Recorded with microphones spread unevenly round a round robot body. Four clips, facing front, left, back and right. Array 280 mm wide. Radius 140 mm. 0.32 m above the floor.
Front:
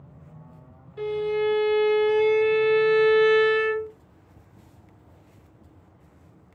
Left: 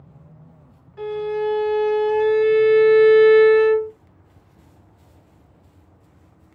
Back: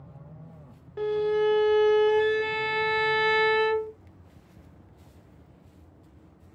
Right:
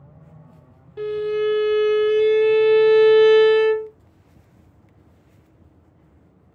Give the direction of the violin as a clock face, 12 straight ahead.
5 o'clock.